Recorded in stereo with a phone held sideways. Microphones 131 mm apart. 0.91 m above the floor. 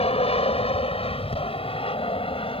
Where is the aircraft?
50° left (ahead or behind); by 2.6 s 45° left (ahead or behind).